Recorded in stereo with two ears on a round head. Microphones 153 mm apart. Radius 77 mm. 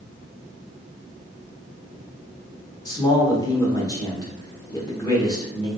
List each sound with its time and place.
2.9 s a man speaking: 20° left (ahead or behind), 1.1 m